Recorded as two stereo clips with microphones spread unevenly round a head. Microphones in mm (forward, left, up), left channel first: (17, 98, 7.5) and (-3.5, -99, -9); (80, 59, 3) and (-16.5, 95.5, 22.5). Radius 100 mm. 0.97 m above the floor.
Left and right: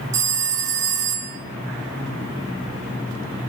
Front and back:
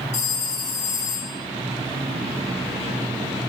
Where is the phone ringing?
60° right, 1.4 m.